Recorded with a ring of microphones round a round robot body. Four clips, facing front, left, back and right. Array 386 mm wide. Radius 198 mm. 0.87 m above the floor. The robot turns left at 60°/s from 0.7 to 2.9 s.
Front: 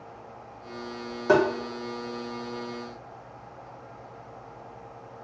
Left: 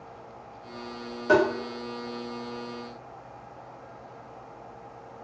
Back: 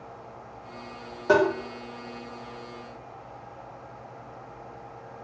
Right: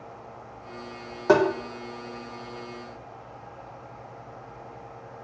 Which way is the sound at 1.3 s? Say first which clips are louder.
Right 2 dB, even; 90° right.